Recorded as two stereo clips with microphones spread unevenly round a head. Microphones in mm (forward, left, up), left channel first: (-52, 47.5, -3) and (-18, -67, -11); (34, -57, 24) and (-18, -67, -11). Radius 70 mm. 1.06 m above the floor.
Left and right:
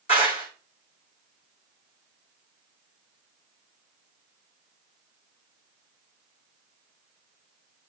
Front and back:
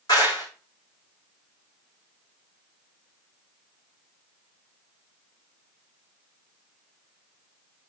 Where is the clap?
55° left, 4 m.